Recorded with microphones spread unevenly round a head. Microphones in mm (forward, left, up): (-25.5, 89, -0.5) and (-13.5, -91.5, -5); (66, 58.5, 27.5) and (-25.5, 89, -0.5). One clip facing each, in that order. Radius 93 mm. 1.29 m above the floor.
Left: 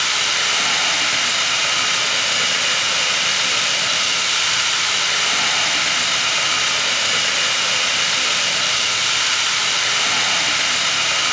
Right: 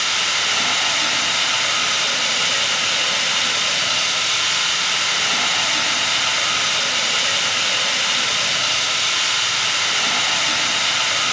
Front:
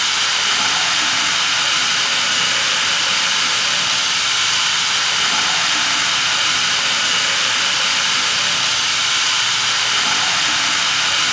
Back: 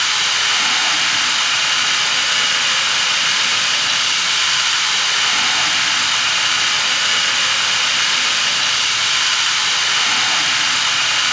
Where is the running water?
25° left, 4.5 m.